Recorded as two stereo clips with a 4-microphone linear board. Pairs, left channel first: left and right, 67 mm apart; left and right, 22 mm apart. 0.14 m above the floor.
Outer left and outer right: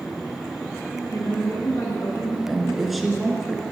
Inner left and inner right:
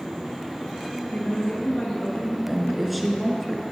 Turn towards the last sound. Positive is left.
turn(degrees=-5)  # may be behind; listen again after turning